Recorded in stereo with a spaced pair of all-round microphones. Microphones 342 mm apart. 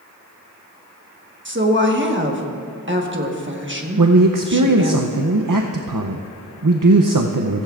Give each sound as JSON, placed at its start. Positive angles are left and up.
{"t": 1.4, "sound": "a woman speaking", "side_deg": -35, "distance_m": 1.3}
{"t": 4.0, "sound": "a man speaking", "side_deg": -75, "distance_m": 0.6}